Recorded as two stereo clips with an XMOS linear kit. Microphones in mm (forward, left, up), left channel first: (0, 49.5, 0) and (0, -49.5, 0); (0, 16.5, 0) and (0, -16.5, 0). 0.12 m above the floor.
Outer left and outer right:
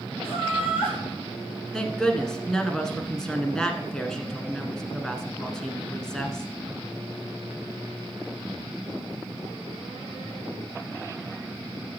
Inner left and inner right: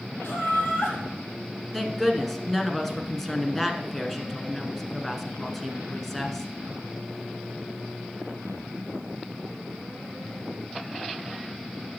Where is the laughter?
70° left (ahead or behind), 4 m.